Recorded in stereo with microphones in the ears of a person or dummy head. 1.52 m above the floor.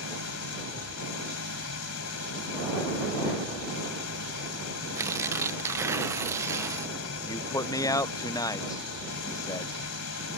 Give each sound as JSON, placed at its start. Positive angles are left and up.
{"t": 0.0, "sound": "an engine running", "side_deg": 85}
{"t": 5.0, "sound": "tearing paper", "side_deg": -15}
{"t": 7.2, "sound": "a man speaking", "side_deg": 15}